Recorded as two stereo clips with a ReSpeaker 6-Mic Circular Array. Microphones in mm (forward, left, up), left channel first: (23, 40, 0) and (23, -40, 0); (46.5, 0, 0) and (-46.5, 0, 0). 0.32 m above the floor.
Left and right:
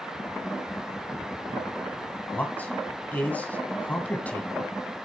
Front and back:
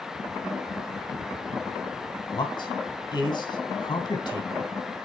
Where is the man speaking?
25° left, 2.5 m.